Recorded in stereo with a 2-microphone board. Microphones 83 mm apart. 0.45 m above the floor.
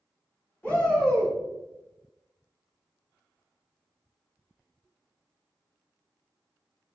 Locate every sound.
0.6 s a shout: 20° left (ahead or behind), 1.8 m